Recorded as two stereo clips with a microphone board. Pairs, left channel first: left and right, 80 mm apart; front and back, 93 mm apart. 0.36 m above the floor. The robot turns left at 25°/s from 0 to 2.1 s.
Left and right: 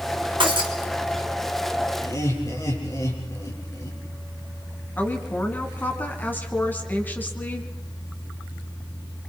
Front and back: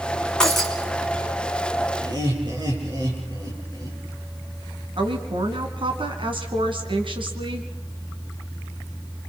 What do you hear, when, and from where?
0.4 s breaking glass: 85° right, 2.5 m; by 0.7 s 90° right, 2.5 m
2.0 s laughter: 140° left, 7.5 m; by 4.0 s 135° left, 7.5 m
5.0 s a woman speaking: 155° left, 3 m